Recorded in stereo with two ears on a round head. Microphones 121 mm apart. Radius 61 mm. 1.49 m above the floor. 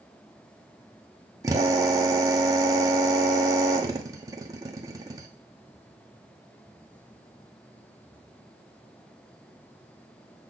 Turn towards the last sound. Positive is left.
turn(degrees=-25)  # may be behind; listen again after turning